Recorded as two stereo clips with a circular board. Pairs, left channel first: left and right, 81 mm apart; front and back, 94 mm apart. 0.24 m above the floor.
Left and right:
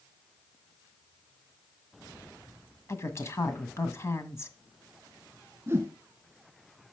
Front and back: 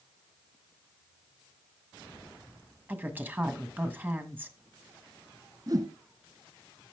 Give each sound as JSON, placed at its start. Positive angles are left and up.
{"t": 2.9, "sound": "a woman speaking", "azimuth_deg": 120, "distance_m": 1.5}
{"t": 5.7, "sound": "a whoosh", "azimuth_deg": -145, "distance_m": 1.9}